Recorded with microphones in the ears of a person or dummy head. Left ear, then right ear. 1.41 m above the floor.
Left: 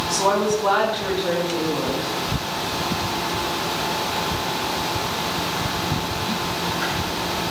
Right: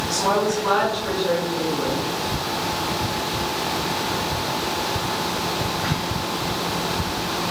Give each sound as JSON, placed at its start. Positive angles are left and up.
{"t": 0.1, "sound": "a woman speaking", "side_deg": 30, "distance_m": 3.0}